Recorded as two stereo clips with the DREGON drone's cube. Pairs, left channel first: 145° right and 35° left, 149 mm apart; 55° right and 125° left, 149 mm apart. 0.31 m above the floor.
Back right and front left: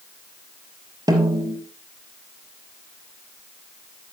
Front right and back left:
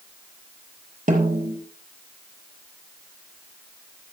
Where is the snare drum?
95° left, 4.5 m.